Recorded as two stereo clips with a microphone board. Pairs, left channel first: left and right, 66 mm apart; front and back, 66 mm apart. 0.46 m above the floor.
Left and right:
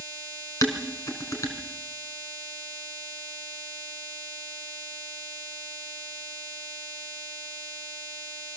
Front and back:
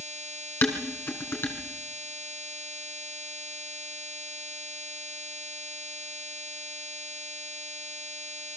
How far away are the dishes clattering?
About 3.5 m.